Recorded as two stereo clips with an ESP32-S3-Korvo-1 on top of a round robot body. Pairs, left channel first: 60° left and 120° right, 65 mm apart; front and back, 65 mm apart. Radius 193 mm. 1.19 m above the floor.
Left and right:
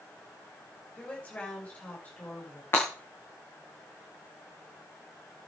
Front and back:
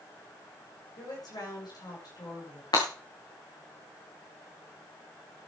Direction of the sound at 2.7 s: Straight ahead.